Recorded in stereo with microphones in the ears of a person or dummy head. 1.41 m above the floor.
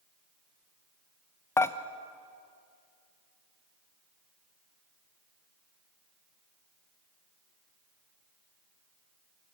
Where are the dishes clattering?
10° left (ahead or behind), 0.8 m.